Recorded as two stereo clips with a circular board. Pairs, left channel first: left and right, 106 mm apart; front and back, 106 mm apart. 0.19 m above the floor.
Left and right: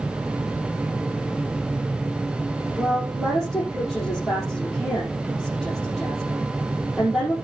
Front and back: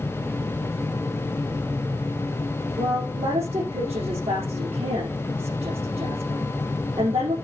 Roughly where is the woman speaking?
Behind.